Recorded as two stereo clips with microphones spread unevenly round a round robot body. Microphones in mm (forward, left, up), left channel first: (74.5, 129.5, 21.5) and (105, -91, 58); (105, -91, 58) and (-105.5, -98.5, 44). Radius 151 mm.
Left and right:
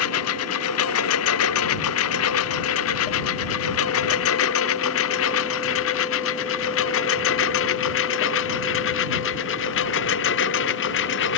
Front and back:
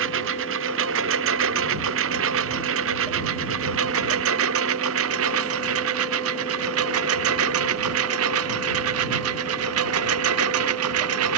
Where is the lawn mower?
135° left; by 11.4 s 150° left.